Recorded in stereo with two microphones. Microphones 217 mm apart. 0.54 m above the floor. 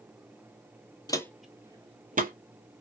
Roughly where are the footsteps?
Centre.